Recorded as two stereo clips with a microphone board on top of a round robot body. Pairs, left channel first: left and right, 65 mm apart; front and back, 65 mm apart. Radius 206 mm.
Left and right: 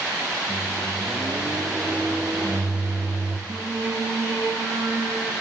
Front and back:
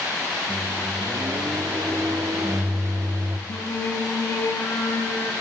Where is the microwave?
155° right, 0.8 m.